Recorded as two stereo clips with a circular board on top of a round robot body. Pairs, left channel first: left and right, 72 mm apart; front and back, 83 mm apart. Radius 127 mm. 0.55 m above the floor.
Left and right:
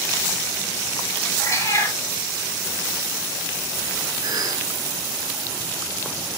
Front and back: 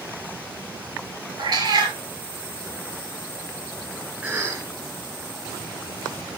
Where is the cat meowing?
145° left, 5 m.